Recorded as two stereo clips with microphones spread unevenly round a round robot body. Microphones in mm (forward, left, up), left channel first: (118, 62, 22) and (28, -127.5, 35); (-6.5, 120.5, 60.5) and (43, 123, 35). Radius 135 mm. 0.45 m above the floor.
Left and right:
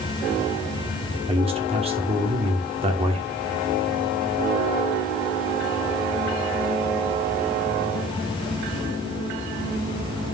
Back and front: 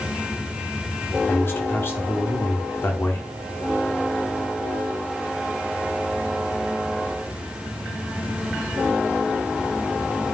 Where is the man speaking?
140° right, 1.4 m.